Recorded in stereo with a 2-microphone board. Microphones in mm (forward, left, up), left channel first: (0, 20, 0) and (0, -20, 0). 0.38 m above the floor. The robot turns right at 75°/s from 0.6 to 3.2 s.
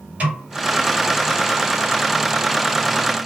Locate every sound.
0.2 s a snare drum: 35° right (ahead or behind), 2 m